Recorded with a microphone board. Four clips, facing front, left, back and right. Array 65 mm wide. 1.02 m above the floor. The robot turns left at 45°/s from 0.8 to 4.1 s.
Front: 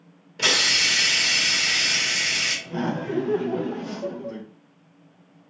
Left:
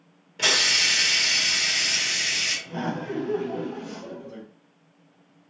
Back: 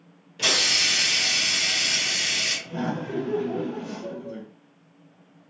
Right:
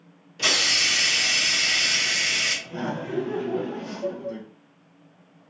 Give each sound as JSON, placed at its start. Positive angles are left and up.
{"t": 0.4, "sound": "a hiss", "azimuth_deg": 35, "distance_m": 1.1}
{"t": 2.7, "sound": "laughter", "azimuth_deg": 40, "distance_m": 0.6}